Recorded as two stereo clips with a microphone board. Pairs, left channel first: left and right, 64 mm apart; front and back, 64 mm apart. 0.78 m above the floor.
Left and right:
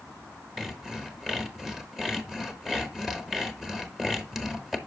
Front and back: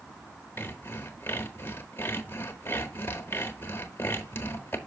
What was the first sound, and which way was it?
Sawing, 5° right.